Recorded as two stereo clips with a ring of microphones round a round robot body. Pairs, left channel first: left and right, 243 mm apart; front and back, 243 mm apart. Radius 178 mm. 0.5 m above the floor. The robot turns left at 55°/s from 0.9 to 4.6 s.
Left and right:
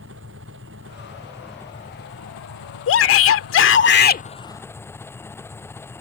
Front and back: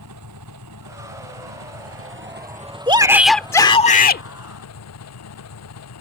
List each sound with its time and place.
0.0 s an engine running: 145° right; by 6.0 s 10° left
2.9 s a shout: 115° left; by 4.2 s 40° left